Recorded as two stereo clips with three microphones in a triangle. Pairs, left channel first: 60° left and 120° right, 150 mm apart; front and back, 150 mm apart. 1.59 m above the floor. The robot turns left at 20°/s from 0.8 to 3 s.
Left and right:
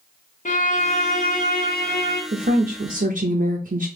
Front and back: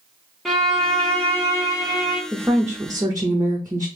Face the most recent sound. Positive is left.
turn(degrees=-115)